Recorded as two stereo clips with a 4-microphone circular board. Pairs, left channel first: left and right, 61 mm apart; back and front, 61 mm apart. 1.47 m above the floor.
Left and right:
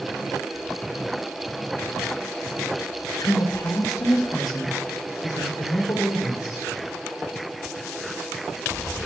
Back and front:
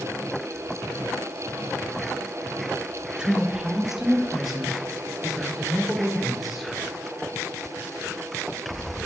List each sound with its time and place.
3.2 s a woman speaking: 75° left, 1.0 m; by 6.7 s 90° left, 3.5 m